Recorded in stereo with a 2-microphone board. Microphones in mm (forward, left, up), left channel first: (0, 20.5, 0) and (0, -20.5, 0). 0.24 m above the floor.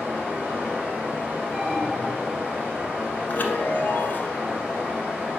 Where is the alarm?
30° right (ahead or behind), 2.5 m.